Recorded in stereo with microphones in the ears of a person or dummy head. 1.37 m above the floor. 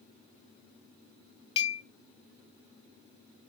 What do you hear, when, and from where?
1.6 s a clink: 30° left (ahead or behind), 0.5 m